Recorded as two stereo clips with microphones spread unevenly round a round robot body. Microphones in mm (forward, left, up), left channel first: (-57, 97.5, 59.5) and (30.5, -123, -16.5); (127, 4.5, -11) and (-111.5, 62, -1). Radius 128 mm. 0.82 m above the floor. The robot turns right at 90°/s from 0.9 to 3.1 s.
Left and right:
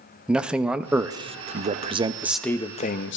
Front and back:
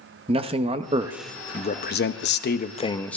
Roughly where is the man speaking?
Behind right.